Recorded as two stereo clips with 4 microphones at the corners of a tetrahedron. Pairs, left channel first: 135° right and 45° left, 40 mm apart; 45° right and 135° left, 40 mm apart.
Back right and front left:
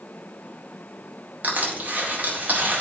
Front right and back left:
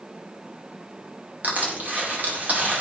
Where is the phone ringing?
No phone ringing in this recording.